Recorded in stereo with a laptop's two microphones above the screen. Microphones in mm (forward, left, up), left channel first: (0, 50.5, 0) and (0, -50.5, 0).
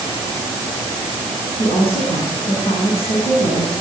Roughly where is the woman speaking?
Left.